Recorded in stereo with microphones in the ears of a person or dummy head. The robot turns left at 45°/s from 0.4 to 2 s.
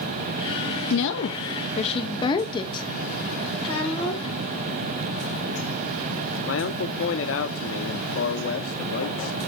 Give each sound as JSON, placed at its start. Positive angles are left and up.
{"t": 0.9, "sound": "a woman speaking", "azimuth_deg": 75, "distance_m": 0.8}
{"t": 3.6, "sound": "a child speaking", "side_deg": 30, "distance_m": 7.0}
{"t": 6.5, "sound": "a man speaking", "side_deg": 60, "distance_m": 0.9}